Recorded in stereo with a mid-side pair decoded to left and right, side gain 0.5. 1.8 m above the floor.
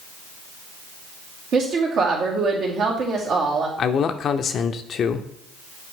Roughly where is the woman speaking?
Ahead right.